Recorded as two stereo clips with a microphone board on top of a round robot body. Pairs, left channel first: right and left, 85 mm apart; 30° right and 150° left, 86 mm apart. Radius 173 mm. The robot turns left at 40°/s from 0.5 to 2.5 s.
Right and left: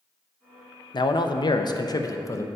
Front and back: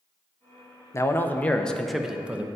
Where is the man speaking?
80° right, 0.7 m; by 2.5 s 140° right, 0.7 m.